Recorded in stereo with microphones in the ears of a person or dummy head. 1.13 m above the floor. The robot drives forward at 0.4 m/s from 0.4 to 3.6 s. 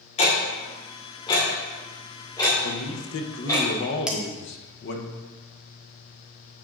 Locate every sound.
0.2 s ticking: 35° left (ahead or behind), 1.3 m; by 3.6 s 20° left (ahead or behind), 2.5 m
2.6 s a man speaking: 75° left (ahead or behind), 0.7 m; by 5.1 s 60° left (ahead or behind), 0.8 m
4.1 s dishes clattering: 5° right (ahead or behind), 0.6 m